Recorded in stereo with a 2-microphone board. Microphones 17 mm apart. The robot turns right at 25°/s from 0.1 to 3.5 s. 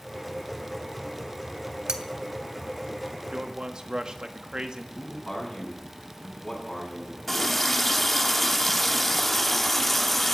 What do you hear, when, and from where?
1.9 s cutlery clinking: 55° right (ahead or behind), 1.5 m
3.3 s a man speaking: 50° right (ahead or behind), 1.5 m
5.0 s a man speaking: 25° left (ahead or behind), 7.5 m
7.3 s a running tap: centre (ahead or behind), 0.9 m